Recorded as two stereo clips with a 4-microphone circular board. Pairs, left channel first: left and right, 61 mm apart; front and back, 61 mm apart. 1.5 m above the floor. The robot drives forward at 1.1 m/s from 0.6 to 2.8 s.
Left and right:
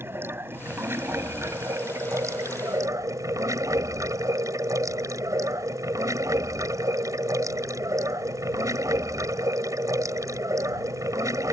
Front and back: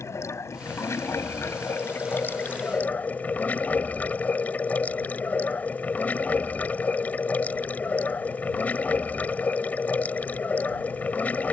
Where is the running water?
40° right; by 11.5 s 65° right.